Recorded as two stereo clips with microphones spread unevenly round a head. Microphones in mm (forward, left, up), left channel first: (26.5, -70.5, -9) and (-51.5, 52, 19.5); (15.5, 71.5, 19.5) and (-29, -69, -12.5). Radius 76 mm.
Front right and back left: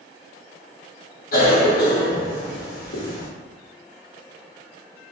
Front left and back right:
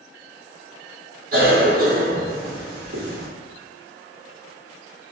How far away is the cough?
About 1.1 m.